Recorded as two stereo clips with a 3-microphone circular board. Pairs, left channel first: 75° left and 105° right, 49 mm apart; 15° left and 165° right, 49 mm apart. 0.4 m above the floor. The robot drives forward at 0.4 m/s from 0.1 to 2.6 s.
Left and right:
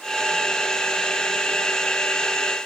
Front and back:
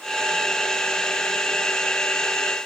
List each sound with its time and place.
Only background noise.